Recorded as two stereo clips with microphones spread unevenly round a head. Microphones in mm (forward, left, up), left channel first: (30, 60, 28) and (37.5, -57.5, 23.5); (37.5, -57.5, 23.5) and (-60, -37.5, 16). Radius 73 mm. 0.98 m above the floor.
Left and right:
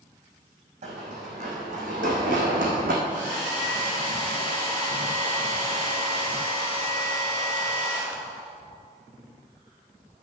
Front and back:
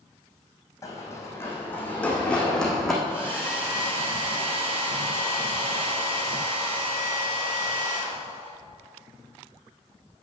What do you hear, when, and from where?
0.8 s running footsteps: 65° right, 3 m; by 2.9 s 100° right, 3 m
3.0 s a hair dryer: 165° right, 4 m